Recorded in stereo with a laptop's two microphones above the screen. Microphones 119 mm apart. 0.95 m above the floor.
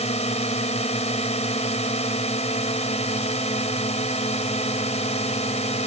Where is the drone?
55° left (ahead or behind).